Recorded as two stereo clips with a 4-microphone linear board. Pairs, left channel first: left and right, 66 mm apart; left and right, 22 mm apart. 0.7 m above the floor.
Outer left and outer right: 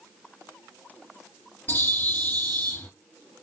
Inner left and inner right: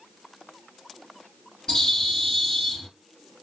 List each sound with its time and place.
1.7 s a bird: 30° left (ahead or behind), 2.5 m